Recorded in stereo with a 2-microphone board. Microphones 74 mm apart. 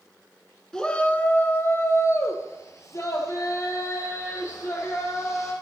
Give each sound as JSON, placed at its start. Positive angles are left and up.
{"t": 0.7, "sound": "a shout", "side_deg": 10, "distance_m": 1.1}